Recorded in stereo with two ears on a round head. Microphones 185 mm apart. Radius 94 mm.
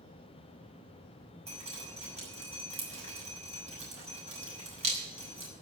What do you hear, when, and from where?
1.5 s dripping: 35° right (ahead or behind), 6 m